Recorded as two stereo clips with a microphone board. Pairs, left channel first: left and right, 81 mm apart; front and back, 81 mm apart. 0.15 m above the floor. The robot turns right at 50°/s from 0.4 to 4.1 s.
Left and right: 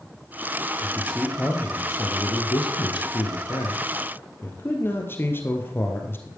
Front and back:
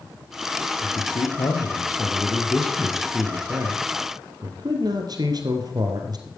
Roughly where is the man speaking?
Ahead.